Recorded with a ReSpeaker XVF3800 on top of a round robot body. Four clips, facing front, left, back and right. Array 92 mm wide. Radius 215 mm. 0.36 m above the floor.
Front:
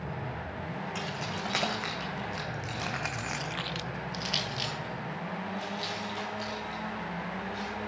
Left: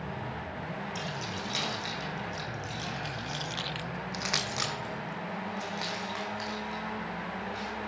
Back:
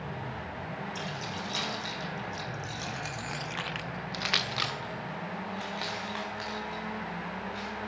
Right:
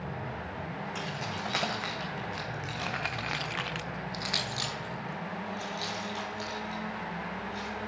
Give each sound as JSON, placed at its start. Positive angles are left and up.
{"t": 0.9, "sound": "keys jangling", "azimuth_deg": -40, "distance_m": 3.0}